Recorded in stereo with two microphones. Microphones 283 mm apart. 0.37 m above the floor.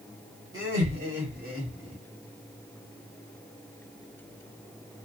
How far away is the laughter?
About 2 m.